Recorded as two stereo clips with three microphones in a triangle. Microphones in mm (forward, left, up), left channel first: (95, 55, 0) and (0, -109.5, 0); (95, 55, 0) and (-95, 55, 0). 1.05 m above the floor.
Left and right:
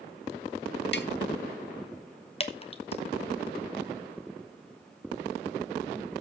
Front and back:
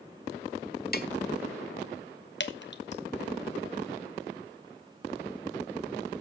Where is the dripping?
Straight ahead, 1.1 m.